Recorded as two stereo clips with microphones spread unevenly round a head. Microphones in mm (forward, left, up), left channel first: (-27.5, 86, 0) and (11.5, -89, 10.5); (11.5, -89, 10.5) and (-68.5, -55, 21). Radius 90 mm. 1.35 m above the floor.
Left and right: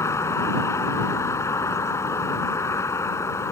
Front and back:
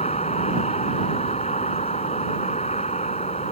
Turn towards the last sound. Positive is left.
turn(degrees=25)